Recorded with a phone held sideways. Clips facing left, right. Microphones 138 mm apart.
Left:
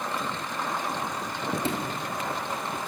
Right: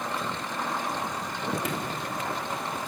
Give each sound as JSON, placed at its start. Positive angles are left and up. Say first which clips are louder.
{"t": 1.6, "sound": "a sliding door", "louder": "left 2 dB", "side_deg": 30, "distance_m": 4.0}